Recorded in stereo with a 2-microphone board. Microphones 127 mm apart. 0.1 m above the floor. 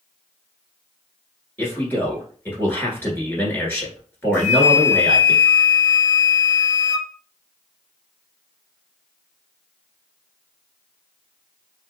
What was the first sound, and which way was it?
A man speaking, 15° left (ahead or behind).